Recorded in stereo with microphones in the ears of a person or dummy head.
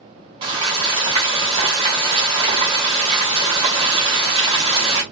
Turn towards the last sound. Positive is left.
turn(degrees=-25)  # may be behind; listen again after turning